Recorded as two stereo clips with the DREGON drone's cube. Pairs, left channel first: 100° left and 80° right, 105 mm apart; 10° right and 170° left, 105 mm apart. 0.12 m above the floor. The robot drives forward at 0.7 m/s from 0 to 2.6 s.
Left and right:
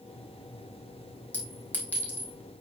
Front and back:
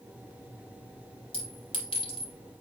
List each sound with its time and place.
1.3 s a clink: 25° left, 3.5 m; by 2.3 s 30° left, 3 m